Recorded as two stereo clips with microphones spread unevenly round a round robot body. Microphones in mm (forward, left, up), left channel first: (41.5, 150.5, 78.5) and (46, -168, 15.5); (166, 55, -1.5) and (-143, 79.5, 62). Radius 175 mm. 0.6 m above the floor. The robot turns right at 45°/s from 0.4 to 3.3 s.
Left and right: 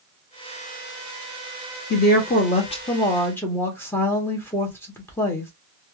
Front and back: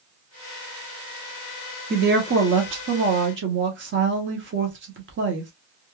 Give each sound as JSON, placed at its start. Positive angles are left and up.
{"t": 1.9, "sound": "a woman speaking", "azimuth_deg": 130, "distance_m": 1.0}